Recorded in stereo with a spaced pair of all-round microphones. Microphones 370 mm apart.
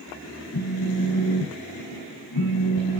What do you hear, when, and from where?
0.5 s a phone buzzing: 75° left (ahead or behind), 1.3 m